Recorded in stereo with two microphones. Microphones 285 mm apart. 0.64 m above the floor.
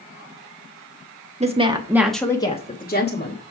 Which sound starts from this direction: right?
A woman speaking, at 1.4 s.